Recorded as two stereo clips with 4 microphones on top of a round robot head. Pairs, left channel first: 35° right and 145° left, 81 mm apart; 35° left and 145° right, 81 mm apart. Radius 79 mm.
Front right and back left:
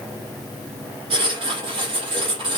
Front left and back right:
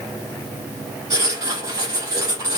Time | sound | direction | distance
1.1 | writing | 170° left | 5.5 m